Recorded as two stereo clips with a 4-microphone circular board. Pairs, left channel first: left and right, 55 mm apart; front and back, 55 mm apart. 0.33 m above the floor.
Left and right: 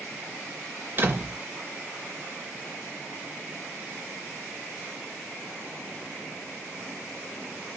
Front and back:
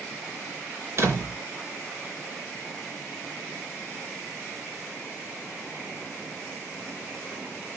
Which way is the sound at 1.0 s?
145° right.